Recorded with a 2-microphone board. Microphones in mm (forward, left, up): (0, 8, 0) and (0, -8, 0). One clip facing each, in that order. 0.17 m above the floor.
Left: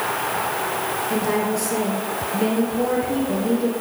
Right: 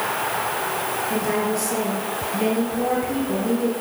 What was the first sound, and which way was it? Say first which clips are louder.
A woman speaking: left 1 dB; 5° right (ahead or behind).